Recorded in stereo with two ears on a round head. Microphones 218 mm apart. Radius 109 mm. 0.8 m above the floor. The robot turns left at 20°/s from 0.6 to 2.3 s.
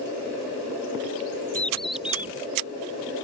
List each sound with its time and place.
1.6 s a bird: 5° left (ahead or behind); by 2.3 s 10° right (ahead or behind)